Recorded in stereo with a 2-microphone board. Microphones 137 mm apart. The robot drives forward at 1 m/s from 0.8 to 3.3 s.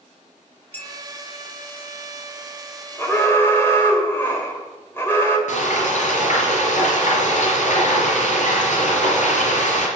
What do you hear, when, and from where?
0.7 s a clink: 15° left (ahead or behind), 1.2 m
3.0 s an alarm: 15° left (ahead or behind), 2 m
5.5 s frying: 65° left (ahead or behind), 4 m